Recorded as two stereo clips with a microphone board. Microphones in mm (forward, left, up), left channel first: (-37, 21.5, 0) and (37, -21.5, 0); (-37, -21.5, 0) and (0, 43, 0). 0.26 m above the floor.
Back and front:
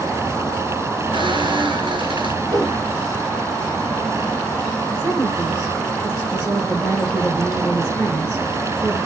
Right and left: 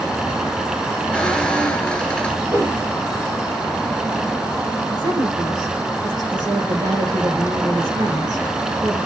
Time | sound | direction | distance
1.1 | a squeak | 45° right | 2 m
2.4 | a whoosh | 10° left | 5.5 m
4.9 | a woman speaking | 35° left | 9.5 m